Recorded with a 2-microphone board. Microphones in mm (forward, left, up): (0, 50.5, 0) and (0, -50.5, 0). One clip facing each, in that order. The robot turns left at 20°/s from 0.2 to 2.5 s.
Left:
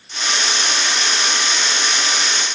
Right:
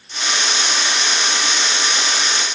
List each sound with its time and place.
Only background noise.